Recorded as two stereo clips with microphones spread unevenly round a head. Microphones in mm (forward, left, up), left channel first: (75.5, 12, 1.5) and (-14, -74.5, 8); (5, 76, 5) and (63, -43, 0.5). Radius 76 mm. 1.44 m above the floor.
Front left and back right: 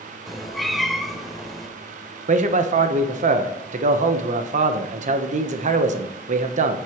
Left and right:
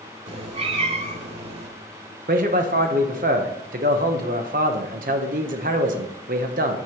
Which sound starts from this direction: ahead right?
A cat meowing, at 0.3 s.